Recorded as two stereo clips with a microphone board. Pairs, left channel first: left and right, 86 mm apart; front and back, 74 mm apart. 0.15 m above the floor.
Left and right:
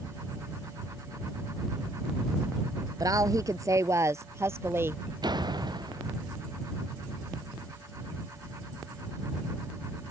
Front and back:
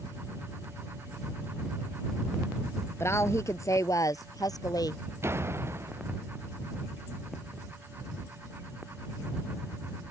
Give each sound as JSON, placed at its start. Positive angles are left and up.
{"t": 3.0, "sound": "a woman speaking", "azimuth_deg": -50}
{"t": 5.2, "sound": "a door slam", "azimuth_deg": -125}